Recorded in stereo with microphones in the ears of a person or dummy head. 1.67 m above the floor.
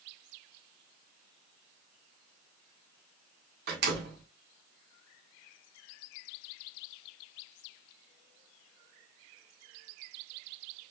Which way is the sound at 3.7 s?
60° right (ahead or behind).